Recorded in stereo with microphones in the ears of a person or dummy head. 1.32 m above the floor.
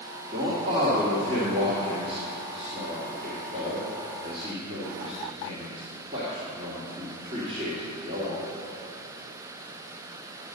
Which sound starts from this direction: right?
A man speaking, at 0.3 s.